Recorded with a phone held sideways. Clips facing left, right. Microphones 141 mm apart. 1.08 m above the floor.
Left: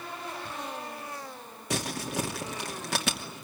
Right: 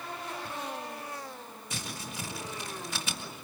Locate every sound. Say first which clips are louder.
1.7 s crumpling: left 10 dB; 75° left (ahead or behind), 2.5 m